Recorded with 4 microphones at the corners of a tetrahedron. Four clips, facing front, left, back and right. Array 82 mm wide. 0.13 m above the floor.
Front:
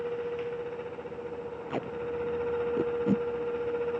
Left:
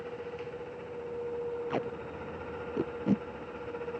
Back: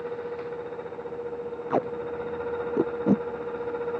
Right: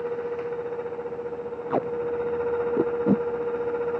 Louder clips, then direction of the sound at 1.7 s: Right 9 dB, back 6 dB; 140° right.